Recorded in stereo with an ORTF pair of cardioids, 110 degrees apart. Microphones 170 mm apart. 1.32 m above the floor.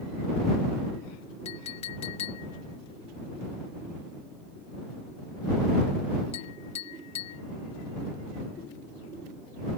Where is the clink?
40° left.